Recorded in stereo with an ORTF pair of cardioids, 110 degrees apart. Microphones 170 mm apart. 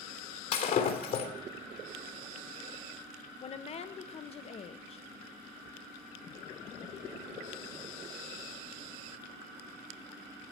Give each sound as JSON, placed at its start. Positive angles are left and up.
{"t": 0.5, "sound": "breaking glass", "azimuth_deg": 60, "distance_m": 3.0}
{"t": 3.4, "sound": "a woman speaking", "azimuth_deg": 40, "distance_m": 1.2}